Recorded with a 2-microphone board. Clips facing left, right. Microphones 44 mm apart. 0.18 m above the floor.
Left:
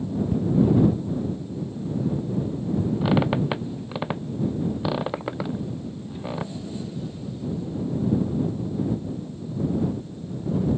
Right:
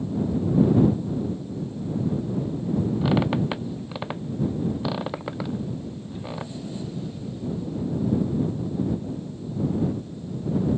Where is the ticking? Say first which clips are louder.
Left 5 dB; 45° left (ahead or behind).